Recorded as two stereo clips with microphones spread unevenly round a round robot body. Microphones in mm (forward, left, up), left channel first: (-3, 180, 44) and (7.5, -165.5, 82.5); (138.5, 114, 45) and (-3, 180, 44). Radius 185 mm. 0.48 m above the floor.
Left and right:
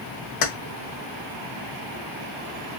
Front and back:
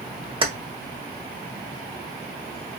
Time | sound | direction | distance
0.4 | keys jangling | 100° left | 1.6 m